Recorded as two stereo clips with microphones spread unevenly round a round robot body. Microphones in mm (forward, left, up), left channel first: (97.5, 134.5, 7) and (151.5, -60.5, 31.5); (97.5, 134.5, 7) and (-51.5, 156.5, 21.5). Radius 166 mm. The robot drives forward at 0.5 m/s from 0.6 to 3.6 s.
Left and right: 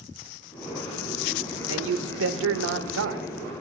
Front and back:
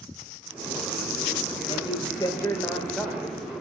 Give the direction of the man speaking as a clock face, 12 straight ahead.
2 o'clock.